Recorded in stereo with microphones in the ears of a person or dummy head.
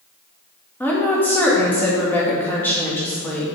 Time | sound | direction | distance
0.8 | a woman speaking | 5° left (ahead or behind) | 1.8 m